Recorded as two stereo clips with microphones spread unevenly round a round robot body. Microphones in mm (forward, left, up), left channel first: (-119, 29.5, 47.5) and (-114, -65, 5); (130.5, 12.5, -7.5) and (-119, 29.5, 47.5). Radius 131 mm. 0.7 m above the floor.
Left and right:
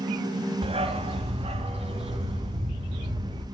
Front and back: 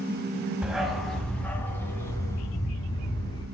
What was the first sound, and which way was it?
A dog barking, 95° right.